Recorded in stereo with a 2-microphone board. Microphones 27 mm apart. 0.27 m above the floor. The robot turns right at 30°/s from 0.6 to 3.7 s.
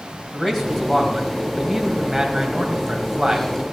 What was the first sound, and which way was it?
A man speaking, 160° left.